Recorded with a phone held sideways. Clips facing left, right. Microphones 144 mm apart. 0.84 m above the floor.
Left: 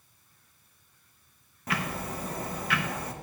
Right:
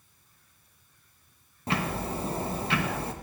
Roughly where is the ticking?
Right.